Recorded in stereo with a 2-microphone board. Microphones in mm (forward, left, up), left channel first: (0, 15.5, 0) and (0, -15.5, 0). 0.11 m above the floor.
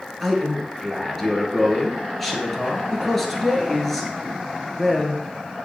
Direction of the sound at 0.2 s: 10° left (ahead or behind).